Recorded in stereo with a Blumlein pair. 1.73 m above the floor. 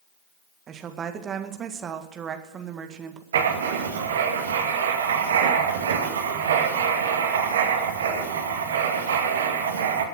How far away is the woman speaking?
About 1.8 m.